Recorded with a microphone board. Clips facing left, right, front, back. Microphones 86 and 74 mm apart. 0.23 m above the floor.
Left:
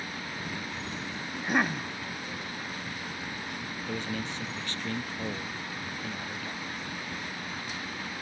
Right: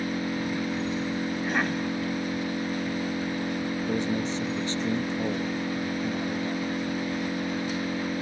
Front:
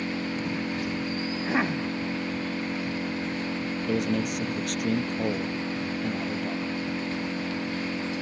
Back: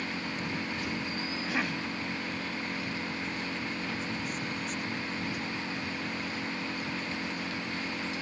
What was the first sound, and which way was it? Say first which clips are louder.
An engine running: right 9 dB, front 5 dB; 60° right.